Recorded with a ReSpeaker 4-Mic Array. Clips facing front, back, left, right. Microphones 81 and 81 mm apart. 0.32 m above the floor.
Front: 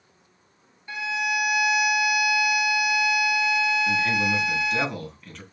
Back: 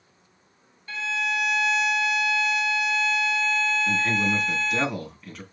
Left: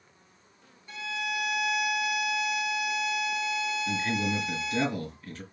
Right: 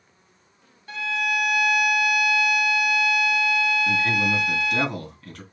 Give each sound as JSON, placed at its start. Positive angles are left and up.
{"t": 0.9, "sound": "a violin", "azimuth_deg": -70, "distance_m": 0.6}
{"t": 3.9, "sound": "a man speaking", "azimuth_deg": -90, "distance_m": 3.5}